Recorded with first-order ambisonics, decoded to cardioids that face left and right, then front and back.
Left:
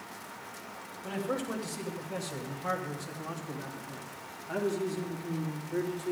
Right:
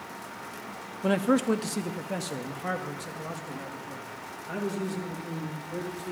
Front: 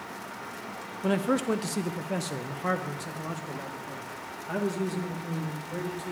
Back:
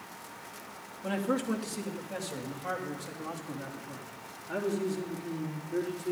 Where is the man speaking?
60° right, 0.6 m; by 6.1 s 20° right, 3 m.